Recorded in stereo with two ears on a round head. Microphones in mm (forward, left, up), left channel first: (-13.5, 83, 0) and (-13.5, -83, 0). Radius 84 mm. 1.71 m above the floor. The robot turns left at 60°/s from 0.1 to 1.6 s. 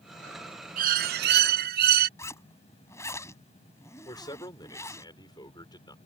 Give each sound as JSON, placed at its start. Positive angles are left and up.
{"t": 0.8, "sound": "a bird", "azimuth_deg": -55}
{"t": 2.2, "sound": "a zipper", "side_deg": 15}
{"t": 4.0, "sound": "a man speaking", "side_deg": 25}